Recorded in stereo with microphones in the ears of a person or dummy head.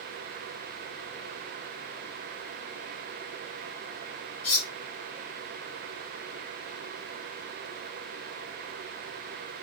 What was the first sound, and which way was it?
Cutlery clinking, 70° left (ahead or behind).